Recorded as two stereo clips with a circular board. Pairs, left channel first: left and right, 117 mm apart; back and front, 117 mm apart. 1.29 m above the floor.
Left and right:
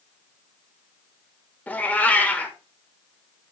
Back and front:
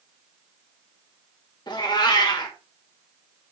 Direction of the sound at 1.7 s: 160° left.